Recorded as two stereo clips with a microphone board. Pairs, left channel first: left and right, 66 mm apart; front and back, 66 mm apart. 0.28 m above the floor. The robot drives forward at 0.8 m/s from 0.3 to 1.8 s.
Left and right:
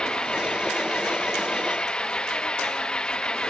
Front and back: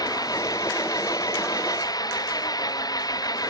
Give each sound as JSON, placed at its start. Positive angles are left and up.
{"t": 0.0, "sound": "an engine running", "azimuth_deg": 10}